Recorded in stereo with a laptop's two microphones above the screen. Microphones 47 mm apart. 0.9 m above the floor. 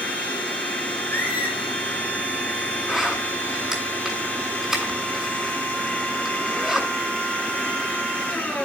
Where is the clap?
I don't hear a clap.